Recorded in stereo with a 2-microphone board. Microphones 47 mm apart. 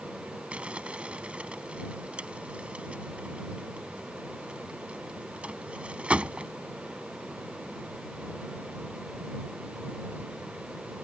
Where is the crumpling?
25° right (ahead or behind).